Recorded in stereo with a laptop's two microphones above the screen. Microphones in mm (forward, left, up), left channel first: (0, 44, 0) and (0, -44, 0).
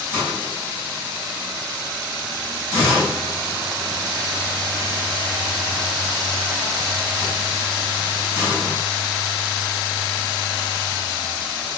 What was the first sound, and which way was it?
A hiss, 25° right (ahead or behind).